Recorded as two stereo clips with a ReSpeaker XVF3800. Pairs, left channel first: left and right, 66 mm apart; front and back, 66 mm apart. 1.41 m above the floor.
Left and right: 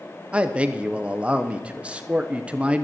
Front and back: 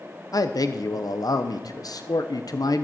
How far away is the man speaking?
About 1.0 m.